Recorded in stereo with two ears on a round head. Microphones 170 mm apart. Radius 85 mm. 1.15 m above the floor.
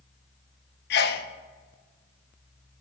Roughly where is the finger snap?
I don't hear a finger snap.